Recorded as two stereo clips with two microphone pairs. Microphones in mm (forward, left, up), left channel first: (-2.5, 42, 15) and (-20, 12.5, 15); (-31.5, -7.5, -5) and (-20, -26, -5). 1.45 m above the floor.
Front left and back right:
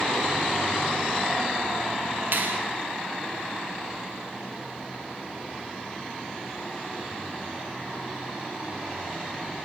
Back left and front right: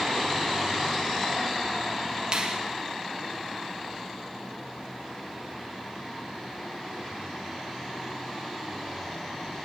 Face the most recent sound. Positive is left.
turn(degrees=-105)